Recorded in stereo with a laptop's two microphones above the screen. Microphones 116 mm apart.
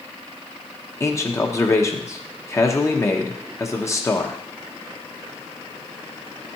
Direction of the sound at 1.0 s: 25° left (ahead or behind).